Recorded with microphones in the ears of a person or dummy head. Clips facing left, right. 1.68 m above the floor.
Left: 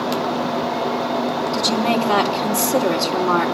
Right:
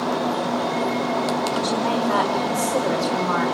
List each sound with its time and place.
1.5 s a woman speaking: 80° left, 4 m